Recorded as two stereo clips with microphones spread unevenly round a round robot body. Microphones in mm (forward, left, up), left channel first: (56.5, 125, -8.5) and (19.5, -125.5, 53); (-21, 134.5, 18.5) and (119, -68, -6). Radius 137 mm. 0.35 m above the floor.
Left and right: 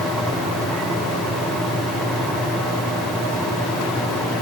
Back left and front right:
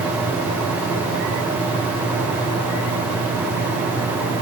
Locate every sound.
Only background noise.